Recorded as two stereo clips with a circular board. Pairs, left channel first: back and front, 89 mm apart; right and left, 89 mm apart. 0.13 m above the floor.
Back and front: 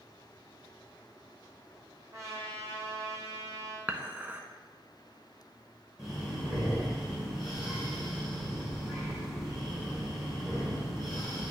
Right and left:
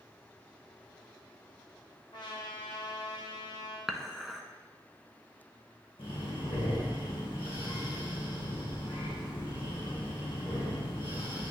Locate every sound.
2.1 s a trumpet: 55° right, 1.9 m
3.9 s dishes clattering: straight ahead, 0.8 m
6.0 s breathing: 85° right, 3 m